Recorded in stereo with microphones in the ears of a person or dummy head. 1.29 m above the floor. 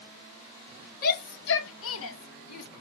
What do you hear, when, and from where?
1.0 s a shout: 50° left (ahead or behind), 1.1 m; by 2.7 s 85° left, 1.6 m